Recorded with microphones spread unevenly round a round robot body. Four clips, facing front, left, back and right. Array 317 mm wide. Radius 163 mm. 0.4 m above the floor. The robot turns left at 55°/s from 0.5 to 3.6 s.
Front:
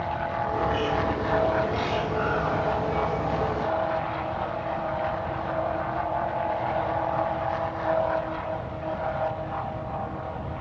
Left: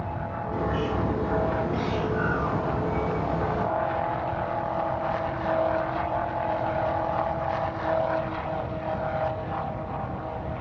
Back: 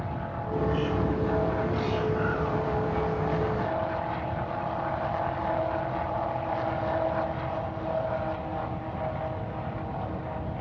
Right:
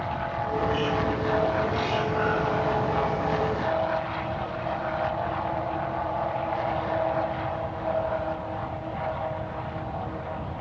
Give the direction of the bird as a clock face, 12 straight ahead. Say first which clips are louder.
Right 1 dB, even; 6 o'clock.